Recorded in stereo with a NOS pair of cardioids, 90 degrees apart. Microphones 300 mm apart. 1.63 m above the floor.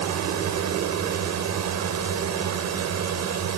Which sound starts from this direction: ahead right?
A drone, at 0.0 s.